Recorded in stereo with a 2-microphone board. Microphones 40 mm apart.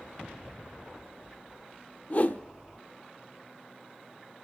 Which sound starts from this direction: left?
A whoosh, at 2.1 s.